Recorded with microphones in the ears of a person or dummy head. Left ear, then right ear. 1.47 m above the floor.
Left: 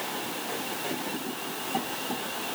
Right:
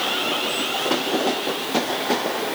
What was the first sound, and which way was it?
Only background noise.